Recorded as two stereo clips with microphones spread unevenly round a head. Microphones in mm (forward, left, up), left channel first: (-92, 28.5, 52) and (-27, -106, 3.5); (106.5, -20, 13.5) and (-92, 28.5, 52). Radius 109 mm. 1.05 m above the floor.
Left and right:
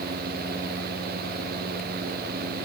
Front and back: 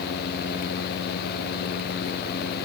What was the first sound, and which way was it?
Only background noise.